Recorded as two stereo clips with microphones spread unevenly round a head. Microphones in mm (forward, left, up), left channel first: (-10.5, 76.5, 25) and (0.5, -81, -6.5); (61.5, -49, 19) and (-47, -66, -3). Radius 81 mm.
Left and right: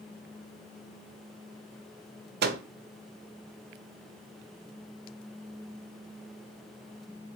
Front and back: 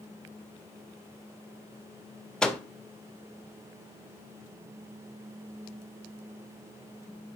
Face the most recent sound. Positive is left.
turn(degrees=-75)